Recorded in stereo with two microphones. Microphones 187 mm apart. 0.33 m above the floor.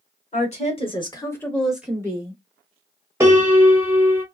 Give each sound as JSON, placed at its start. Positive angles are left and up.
{"t": 0.3, "sound": "a woman speaking", "side_deg": 35, "distance_m": 1.3}
{"t": 3.2, "sound": "a piano", "side_deg": -15, "distance_m": 0.9}